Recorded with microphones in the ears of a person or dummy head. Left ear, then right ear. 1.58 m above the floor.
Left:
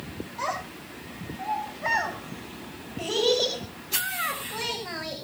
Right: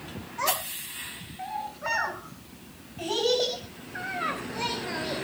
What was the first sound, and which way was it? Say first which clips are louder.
A child speaking: right 2 dB; 5° right (ahead or behind).